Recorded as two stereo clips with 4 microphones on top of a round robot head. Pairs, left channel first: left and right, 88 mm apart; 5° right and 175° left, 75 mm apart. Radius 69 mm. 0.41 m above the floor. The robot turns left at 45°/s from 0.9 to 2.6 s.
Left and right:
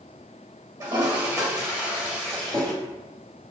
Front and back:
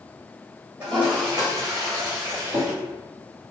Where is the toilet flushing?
115° right, 1.9 m; by 2.7 s 165° left, 1.9 m.